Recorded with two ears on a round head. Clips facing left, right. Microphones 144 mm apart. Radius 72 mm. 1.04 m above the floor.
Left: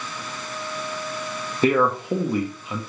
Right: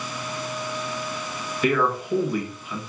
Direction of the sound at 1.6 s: 25° left (ahead or behind).